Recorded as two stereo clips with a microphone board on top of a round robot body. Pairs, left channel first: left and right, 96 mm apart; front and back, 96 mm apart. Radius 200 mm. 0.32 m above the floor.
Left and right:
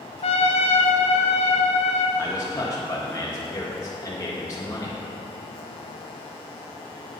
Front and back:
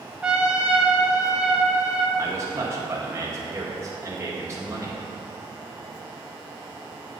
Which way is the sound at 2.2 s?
135° left.